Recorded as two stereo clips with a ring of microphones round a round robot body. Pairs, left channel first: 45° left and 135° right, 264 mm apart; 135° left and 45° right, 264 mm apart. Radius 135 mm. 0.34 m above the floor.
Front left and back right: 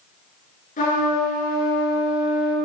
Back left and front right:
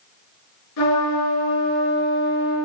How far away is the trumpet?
About 6 m.